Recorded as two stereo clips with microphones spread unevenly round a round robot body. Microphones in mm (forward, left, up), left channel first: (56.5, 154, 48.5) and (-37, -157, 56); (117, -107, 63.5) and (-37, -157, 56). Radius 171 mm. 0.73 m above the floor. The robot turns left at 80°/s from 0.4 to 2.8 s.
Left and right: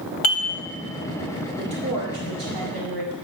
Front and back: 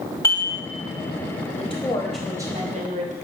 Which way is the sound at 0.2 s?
95° left.